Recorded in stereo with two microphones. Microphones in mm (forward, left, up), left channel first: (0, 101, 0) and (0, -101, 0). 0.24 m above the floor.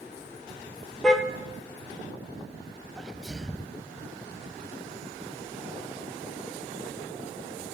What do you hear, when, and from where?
1.0 s a car horn: 5° left (ahead or behind), 2 m
3.0 s a sneeze: centre (ahead or behind), 1.0 m